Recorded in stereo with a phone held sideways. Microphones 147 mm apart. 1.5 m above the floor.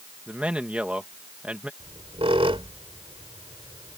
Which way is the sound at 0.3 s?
10° right (ahead or behind).